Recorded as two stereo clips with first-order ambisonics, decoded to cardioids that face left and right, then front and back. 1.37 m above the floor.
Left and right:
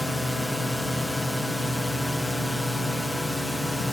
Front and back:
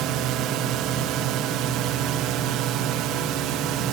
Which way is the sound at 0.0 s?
175° left.